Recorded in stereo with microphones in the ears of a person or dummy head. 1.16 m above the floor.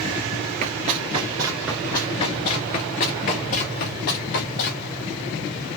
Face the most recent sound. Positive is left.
turn(degrees=60)  # may be behind; listen again after turning